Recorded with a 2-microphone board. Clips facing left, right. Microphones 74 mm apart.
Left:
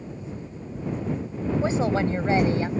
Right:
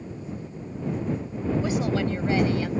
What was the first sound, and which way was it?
A woman speaking, 30° left (ahead or behind).